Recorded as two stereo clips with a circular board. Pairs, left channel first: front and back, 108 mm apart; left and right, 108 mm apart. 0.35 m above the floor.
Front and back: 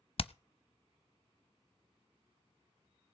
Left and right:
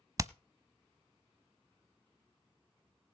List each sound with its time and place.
0.2 s hammering: 30° right, 0.5 m